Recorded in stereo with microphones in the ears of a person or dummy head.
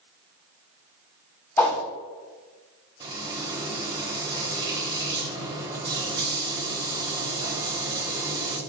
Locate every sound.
1.6 s a whoosh: 15° left (ahead or behind), 1.0 m
3.0 s frying: 20° right (ahead or behind), 0.8 m